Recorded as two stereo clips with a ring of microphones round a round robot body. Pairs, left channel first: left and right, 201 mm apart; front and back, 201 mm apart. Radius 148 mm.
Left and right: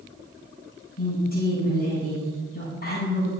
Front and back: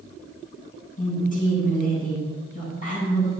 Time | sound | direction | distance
1.0 | a woman speaking | 45° left | 5.5 m